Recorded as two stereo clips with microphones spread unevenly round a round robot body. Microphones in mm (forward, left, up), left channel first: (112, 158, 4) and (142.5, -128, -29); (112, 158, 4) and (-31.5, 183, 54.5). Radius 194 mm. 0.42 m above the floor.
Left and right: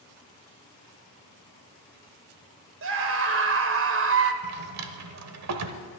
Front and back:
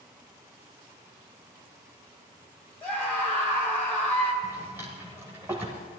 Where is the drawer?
100° right, 0.8 m.